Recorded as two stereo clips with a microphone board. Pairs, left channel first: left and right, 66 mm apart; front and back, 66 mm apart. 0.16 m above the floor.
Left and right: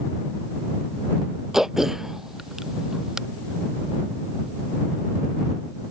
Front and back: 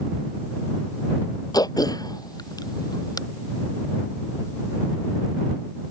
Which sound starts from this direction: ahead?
Throat clearing, at 1.5 s.